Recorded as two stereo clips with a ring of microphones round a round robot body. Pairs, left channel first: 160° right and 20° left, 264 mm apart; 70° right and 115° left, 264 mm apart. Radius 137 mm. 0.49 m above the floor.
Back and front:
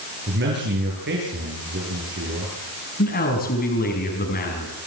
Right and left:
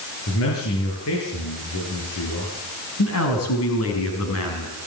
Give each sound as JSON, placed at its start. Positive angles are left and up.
{"t": 0.3, "sound": "a man speaking", "azimuth_deg": -30, "distance_m": 9.0}
{"t": 3.0, "sound": "a man speaking", "azimuth_deg": -100, "distance_m": 5.0}